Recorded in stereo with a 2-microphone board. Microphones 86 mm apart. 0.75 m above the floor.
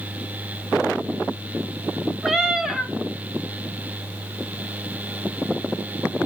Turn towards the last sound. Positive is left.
turn(degrees=-5)  # may be behind; listen again after turning